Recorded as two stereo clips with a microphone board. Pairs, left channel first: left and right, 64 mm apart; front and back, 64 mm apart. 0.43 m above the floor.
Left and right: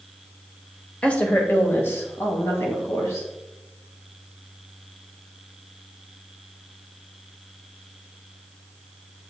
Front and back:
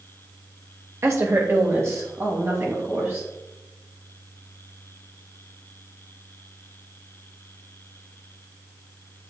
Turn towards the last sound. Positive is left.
turn(degrees=130)